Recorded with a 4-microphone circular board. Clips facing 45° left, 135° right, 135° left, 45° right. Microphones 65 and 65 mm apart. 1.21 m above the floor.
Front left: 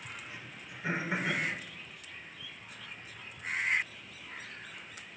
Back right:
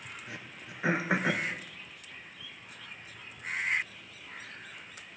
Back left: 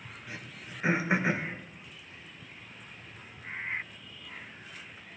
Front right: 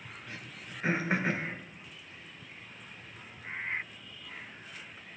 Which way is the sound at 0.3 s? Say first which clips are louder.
Back right 2 dB, back left 3 dB; 145° right.